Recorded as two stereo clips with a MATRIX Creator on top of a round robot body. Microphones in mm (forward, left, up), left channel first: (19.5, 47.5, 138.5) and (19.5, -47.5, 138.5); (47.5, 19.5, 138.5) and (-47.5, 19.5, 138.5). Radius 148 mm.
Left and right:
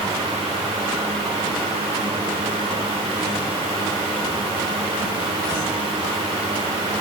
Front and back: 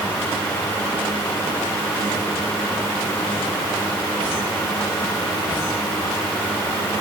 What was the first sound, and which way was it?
Only background noise.